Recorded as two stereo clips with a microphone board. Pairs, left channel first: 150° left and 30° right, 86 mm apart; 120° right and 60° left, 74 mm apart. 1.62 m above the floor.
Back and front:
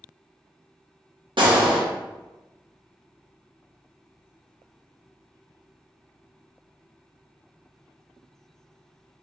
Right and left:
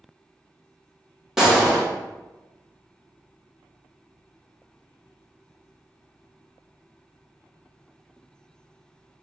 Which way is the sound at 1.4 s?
25° right.